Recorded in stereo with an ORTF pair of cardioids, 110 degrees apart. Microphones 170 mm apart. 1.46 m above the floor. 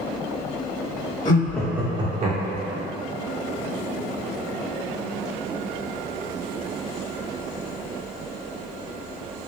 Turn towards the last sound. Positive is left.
turn(degrees=-65)